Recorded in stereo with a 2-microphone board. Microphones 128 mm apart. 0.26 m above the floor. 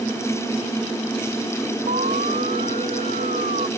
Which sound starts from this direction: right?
An alarm, at 1.9 s.